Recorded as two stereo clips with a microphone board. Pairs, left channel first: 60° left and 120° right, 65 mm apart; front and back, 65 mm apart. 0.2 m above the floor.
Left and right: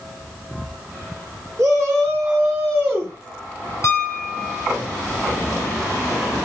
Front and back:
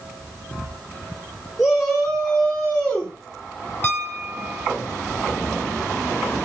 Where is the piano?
50° left, 0.9 m.